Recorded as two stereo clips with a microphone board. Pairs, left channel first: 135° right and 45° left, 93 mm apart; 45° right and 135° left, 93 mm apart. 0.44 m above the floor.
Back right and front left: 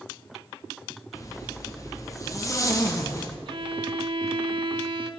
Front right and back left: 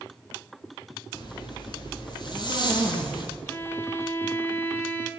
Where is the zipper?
80° right, 3.5 m.